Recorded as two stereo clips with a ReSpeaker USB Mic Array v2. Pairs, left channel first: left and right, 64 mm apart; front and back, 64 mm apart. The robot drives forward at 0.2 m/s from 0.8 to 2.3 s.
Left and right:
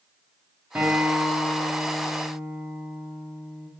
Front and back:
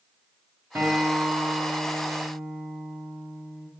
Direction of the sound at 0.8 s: 150° right.